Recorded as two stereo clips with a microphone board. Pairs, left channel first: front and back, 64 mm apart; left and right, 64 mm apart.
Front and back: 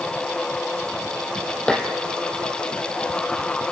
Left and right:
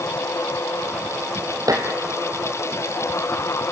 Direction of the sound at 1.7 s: 75° right.